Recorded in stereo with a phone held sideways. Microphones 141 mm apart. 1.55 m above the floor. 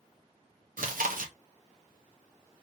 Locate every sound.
0.8 s chewing: 75° right (ahead or behind), 0.6 m